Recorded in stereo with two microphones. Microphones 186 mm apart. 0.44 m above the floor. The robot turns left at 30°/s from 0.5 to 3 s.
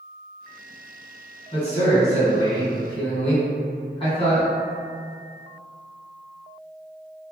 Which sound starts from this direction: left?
A man speaking, at 1.5 s.